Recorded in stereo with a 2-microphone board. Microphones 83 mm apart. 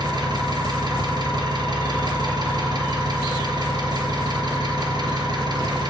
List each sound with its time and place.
0.0 s an engine running: 60° right (ahead or behind), 2.0 m